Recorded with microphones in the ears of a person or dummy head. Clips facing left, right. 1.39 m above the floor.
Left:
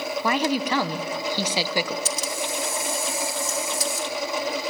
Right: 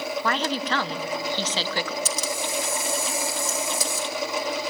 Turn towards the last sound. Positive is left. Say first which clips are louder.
# even
turn(degrees=-70)  # may be behind; listen again after turning